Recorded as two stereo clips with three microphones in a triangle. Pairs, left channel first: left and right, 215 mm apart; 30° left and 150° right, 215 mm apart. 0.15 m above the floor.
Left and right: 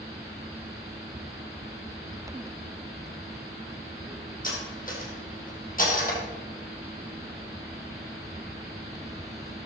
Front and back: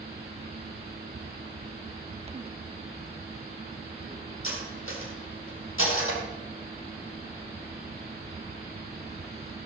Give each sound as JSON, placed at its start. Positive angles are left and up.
{"t": 4.4, "sound": "cutlery clinking", "azimuth_deg": 40, "distance_m": 3.0}